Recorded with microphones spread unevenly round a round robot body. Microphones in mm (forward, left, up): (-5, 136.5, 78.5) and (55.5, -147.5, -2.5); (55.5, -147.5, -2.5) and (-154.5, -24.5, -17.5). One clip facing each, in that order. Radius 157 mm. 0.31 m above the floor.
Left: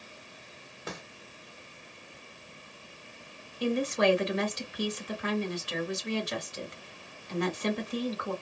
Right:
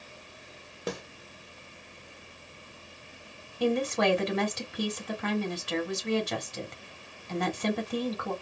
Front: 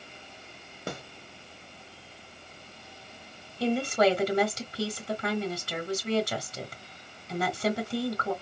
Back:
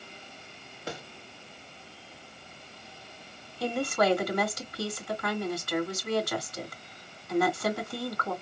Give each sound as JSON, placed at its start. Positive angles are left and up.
{"t": 0.9, "sound": "a snare drum", "azimuth_deg": -60, "distance_m": 1.2}
{"t": 3.6, "sound": "a woman speaking", "azimuth_deg": -95, "distance_m": 2.5}